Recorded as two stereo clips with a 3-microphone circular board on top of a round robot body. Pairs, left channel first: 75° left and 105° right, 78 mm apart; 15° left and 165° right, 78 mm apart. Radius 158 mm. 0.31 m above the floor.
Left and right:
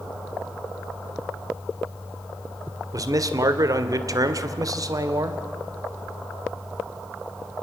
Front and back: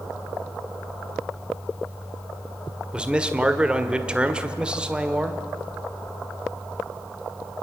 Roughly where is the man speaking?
Right.